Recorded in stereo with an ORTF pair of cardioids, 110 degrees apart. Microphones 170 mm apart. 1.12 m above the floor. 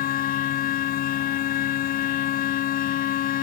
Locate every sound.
0.0 s a machine running: 60° left